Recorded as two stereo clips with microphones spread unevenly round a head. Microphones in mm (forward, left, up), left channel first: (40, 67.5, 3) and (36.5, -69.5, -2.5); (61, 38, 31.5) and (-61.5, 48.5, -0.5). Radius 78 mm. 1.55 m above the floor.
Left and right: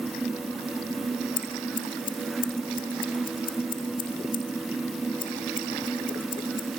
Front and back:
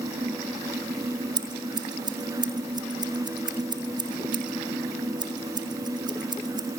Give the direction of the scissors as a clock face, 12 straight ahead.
8 o'clock.